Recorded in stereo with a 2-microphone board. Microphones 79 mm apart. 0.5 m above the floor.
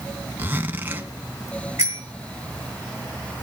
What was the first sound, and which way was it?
A zipper, 25° right (ahead or behind).